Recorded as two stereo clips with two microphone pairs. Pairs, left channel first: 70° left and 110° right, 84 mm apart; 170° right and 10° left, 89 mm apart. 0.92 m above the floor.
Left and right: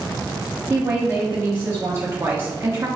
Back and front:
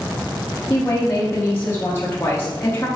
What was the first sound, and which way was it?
A woman speaking, 135° right.